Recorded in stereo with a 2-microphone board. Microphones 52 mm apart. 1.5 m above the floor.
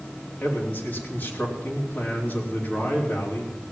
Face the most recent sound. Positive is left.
turn(degrees=35)  # may be behind; listen again after turning